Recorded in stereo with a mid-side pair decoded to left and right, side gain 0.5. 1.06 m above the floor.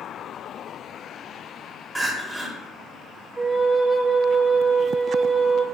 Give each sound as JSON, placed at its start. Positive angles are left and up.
{"t": 1.9, "sound": "crying", "azimuth_deg": -10, "distance_m": 0.8}
{"t": 3.4, "sound": "a flute", "azimuth_deg": -20, "distance_m": 0.8}